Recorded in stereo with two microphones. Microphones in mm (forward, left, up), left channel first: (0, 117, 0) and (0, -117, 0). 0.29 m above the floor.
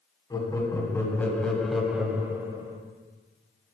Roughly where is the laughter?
Centre.